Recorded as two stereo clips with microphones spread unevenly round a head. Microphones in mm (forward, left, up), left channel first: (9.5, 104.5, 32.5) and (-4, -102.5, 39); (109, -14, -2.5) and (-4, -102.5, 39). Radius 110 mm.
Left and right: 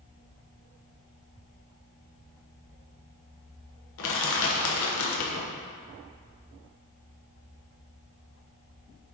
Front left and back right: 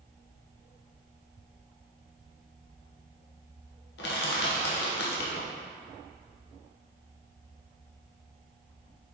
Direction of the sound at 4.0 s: 65° left.